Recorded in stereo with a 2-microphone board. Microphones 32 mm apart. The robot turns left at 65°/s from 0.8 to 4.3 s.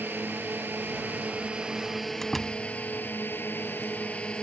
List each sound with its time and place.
0.0 s a drone: 100° right; by 4.4 s 35° left
2.2 s a door slam: 10° left (ahead or behind); by 2.6 s 15° right (ahead or behind)